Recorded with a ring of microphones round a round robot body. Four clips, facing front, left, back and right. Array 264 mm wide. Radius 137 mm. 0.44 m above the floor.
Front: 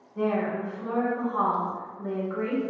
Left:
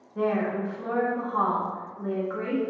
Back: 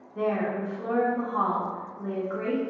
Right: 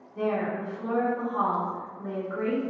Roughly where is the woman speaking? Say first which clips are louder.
Left 2 dB, even; behind left.